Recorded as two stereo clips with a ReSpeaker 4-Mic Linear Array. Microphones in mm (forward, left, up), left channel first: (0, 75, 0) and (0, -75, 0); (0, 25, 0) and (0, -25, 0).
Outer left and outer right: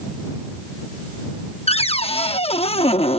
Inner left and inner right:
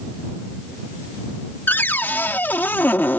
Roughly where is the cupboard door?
Left.